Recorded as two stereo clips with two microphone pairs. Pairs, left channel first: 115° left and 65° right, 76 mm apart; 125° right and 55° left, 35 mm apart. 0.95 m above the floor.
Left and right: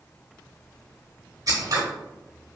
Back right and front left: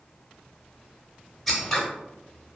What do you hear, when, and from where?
1.5 s scissors: 40° right, 0.9 m